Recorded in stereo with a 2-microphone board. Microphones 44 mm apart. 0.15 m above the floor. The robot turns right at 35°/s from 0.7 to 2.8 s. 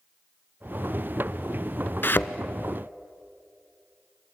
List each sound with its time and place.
2.0 s a thud: 55° left (ahead or behind), 0.9 m